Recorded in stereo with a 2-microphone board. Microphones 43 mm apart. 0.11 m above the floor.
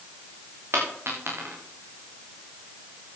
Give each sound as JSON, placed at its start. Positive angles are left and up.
{"t": 0.7, "sound": "a dropped coin", "side_deg": -65, "distance_m": 6.5}